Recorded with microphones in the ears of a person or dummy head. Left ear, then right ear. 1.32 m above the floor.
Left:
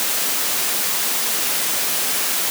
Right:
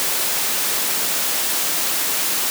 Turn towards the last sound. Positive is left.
No sound to turn to.